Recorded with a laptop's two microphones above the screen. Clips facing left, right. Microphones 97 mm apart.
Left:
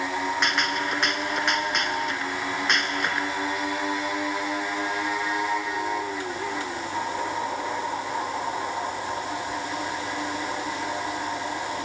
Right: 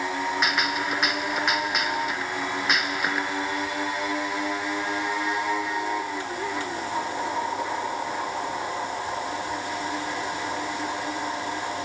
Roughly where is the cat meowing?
No cat meowing in this recording.